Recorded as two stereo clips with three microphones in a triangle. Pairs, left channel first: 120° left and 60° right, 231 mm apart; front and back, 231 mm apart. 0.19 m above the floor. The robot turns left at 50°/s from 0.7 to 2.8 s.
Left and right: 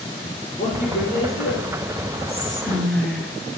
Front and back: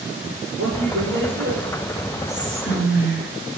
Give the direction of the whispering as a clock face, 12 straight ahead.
10 o'clock.